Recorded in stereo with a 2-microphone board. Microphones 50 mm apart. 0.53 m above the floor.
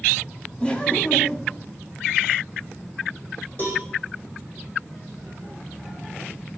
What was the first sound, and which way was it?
Laughter, 20° left (ahead or behind).